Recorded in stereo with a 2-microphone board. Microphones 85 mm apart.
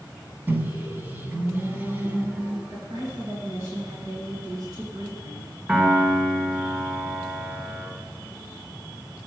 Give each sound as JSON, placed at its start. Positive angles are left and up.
{"t": 0.5, "sound": "a microwave", "side_deg": -25, "distance_m": 1.1}
{"t": 2.7, "sound": "a woman speaking", "side_deg": -55, "distance_m": 2.5}
{"t": 5.7, "sound": "a piano", "side_deg": -20, "distance_m": 2.5}